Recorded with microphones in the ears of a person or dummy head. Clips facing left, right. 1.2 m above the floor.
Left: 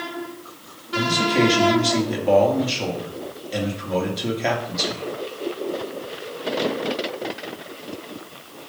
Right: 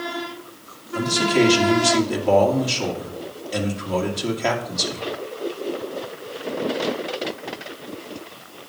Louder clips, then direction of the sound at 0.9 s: Right 1 dB; centre (ahead or behind).